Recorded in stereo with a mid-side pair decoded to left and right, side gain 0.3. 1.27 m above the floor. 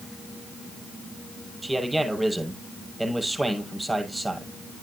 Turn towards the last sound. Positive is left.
turn(degrees=-20)